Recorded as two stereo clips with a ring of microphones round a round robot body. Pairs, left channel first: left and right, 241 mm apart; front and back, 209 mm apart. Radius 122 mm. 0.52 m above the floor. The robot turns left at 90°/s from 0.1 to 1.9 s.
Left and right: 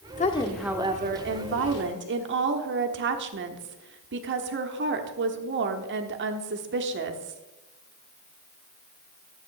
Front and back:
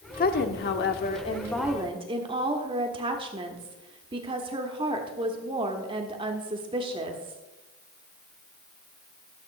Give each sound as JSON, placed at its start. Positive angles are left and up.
{"t": 0.2, "sound": "a woman speaking", "azimuth_deg": 40, "distance_m": 1.0}